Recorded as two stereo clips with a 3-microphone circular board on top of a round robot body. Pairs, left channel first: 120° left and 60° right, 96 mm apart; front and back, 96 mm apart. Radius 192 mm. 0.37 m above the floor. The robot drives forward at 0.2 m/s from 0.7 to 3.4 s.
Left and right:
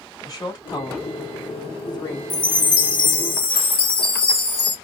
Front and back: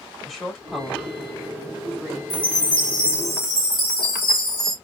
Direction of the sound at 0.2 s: 90° left.